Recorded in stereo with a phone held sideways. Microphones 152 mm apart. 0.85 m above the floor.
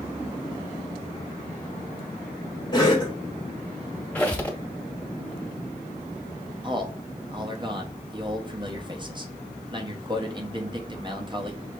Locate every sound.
2.7 s a cough: 25° left (ahead or behind), 1.0 m
4.2 s a squeak: 10° left (ahead or behind), 0.9 m
6.6 s a man speaking: 30° right (ahead or behind), 0.9 m